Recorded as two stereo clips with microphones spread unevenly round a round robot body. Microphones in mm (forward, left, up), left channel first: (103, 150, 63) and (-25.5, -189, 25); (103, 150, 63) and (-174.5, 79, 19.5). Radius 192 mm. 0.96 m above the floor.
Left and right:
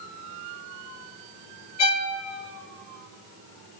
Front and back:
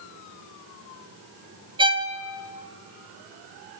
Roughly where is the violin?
Behind left.